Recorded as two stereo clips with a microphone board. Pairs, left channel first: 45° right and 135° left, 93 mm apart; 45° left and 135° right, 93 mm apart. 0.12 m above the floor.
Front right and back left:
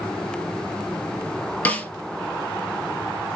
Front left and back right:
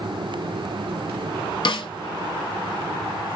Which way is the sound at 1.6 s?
25° left.